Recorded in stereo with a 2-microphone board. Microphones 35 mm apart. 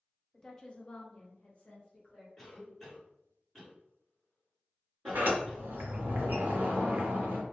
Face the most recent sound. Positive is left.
turn(degrees=-70)  # may be behind; listen again after turning